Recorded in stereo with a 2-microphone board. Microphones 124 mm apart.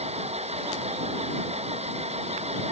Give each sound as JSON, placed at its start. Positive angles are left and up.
{"t": 0.0, "sound": "an engine running", "side_deg": -60}